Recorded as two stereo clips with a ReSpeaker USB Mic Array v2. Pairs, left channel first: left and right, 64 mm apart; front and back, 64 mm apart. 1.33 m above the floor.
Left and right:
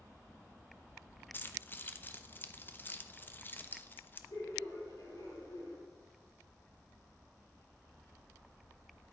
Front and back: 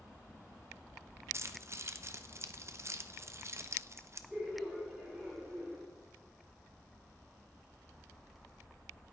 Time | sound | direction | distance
1.3 | keys jangling | 145° left | 0.6 m
4.3 | laughter | 100° left | 5 m